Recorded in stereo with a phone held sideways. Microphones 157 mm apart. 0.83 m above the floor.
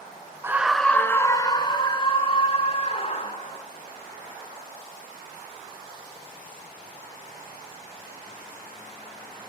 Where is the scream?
15° right (ahead or behind), 0.6 m; by 3.6 s 45° left (ahead or behind), 2.5 m.